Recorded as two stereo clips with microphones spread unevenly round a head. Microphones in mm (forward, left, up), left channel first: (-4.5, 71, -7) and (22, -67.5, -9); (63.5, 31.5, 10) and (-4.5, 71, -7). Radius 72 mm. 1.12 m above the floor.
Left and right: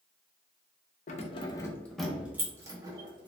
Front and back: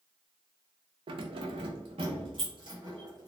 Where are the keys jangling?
135° left, 0.6 m; by 3.3 s 140° right, 1.3 m.